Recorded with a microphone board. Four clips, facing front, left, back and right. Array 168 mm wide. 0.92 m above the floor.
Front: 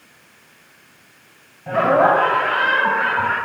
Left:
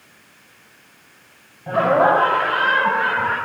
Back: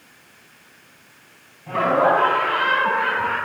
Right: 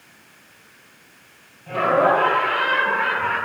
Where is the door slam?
No door slam in this recording.